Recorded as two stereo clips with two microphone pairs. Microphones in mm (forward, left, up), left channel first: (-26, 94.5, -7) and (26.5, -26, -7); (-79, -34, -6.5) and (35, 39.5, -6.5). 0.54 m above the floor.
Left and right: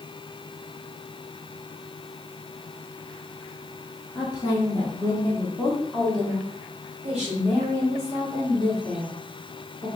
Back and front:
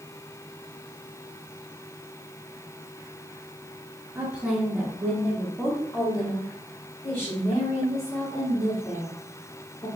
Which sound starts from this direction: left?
A woman speaking, at 4.2 s.